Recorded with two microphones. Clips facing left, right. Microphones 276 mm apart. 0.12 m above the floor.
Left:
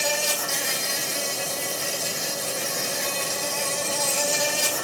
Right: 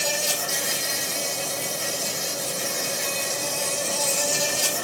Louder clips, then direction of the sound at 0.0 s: Left 1 dB; 80° left.